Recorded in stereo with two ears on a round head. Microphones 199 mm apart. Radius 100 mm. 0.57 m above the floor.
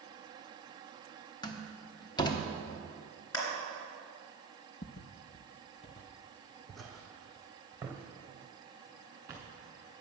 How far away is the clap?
About 3 m.